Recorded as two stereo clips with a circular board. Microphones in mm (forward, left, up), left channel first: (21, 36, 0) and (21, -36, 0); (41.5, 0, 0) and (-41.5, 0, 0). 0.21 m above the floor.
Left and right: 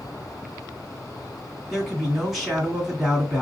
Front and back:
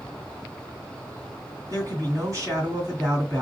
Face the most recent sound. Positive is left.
turn(degrees=180)